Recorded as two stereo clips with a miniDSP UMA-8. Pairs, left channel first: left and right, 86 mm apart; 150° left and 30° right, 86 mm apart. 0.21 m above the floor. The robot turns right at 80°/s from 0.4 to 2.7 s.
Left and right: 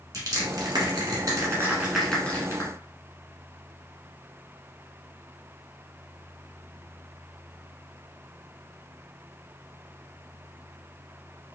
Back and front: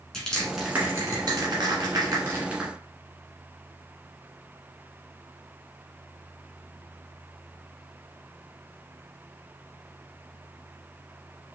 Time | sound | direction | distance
0.1 | crushing | 130° right | 1.4 m